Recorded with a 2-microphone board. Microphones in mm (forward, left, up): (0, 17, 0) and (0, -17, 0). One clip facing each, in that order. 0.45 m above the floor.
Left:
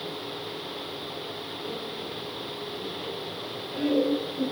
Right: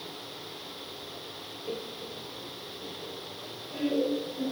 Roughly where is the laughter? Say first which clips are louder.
Even; right.